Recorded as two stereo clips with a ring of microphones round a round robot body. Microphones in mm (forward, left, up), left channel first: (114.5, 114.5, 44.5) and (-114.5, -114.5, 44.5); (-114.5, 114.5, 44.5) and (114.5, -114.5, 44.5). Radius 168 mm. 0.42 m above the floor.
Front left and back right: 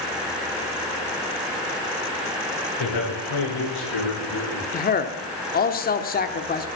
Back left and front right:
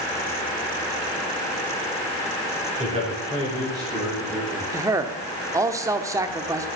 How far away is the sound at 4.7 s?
About 1.0 m.